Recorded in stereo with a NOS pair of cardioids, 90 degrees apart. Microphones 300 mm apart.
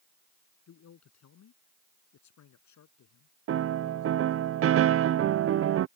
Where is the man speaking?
60° left; by 4.5 s 75° left.